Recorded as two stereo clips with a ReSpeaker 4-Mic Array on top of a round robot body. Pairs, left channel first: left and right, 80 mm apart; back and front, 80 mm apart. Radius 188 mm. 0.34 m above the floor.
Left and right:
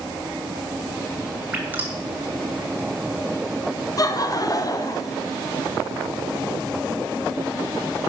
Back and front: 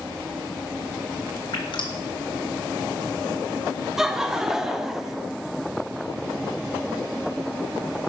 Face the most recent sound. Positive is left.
turn(degrees=85)